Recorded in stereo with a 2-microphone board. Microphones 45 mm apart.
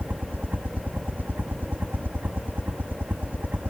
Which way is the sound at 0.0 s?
40° right (ahead or behind).